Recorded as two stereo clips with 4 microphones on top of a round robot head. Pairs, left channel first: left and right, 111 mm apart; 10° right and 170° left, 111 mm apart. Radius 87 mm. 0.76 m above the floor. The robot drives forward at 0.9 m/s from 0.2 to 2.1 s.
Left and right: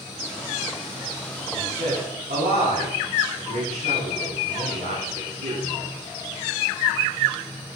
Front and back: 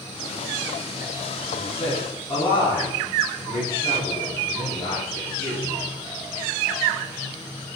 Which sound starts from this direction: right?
A man speaking, at 1.5 s.